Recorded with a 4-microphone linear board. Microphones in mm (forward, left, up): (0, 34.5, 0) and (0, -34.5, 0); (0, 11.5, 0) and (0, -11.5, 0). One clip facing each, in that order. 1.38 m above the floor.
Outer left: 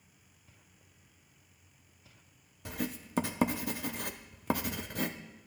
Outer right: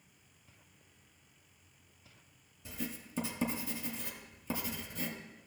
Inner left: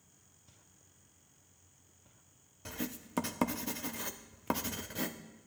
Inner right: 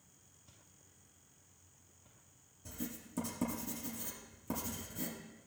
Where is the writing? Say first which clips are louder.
Outer left 5 dB, inner left 4 dB; 65° left (ahead or behind), 0.6 m.